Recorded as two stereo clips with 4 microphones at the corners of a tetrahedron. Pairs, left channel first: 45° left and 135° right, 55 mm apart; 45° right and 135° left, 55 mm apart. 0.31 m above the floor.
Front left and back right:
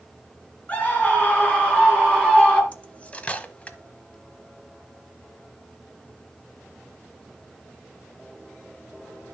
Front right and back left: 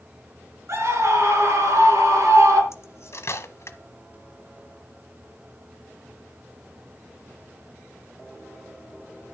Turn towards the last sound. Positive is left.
turn(degrees=-20)